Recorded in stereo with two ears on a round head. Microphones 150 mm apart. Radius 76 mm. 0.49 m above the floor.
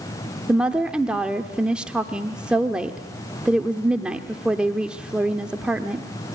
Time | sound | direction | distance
0.5 | a woman speaking | 5° right (ahead or behind) | 1.2 m